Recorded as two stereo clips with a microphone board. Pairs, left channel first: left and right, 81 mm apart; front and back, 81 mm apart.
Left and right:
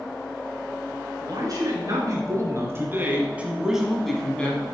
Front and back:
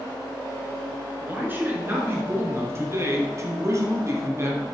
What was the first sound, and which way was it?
A man speaking, 115° right.